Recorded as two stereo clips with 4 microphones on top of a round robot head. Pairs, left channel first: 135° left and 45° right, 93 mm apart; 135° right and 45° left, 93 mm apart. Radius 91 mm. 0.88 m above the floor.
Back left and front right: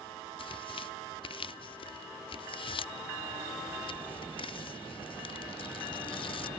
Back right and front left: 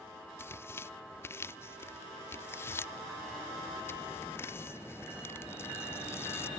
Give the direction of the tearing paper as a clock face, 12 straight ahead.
7 o'clock.